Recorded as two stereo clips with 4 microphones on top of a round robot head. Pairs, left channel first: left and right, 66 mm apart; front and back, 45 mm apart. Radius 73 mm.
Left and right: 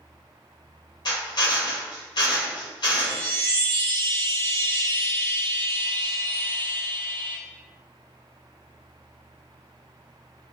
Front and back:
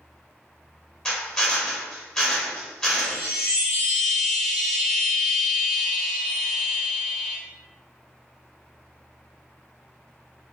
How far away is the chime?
About 1.7 m.